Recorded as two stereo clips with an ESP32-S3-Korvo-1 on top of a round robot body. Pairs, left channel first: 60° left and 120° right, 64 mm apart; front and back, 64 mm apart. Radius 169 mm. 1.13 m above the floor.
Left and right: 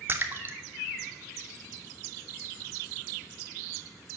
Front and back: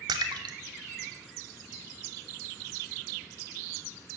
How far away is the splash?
About 0.8 m.